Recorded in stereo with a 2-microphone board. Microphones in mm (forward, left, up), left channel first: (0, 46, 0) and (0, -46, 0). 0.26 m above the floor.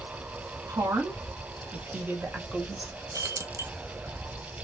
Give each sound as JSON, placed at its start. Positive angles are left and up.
{"t": 0.7, "sound": "a woman speaking", "side_deg": -40, "distance_m": 2.0}
{"t": 3.1, "sound": "keys jangling", "side_deg": -35, "distance_m": 0.8}